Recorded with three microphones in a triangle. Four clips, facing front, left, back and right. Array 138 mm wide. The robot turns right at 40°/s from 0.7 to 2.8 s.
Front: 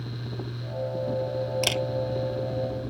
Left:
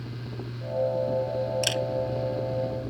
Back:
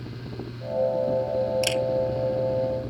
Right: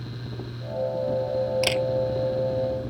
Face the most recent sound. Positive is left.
turn(degrees=-10)